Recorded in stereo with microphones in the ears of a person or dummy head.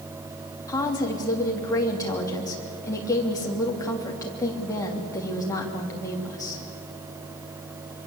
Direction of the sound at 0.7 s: 20° left (ahead or behind).